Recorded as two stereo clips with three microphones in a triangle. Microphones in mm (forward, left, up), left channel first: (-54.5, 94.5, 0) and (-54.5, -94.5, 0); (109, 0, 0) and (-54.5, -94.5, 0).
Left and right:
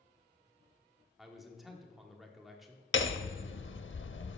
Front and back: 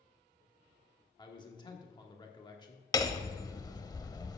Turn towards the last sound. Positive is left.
turn(degrees=100)